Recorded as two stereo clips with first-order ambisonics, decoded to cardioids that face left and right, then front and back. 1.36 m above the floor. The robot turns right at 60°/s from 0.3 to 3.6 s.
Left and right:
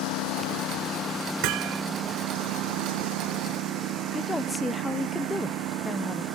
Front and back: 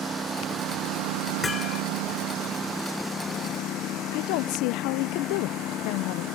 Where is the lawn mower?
105° left; by 6.3 s 45° right.